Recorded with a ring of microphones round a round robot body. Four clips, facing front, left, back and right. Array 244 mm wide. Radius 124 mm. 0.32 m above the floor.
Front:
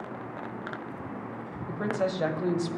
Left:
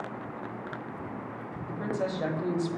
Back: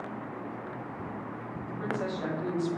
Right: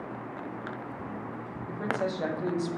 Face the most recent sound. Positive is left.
turn(degrees=-5)